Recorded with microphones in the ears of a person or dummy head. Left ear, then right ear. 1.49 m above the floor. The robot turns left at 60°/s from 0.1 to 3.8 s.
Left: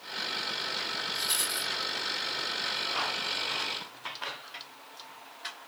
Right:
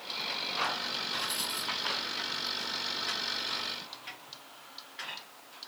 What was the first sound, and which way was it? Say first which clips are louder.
A rattle: left 3 dB; 40° left.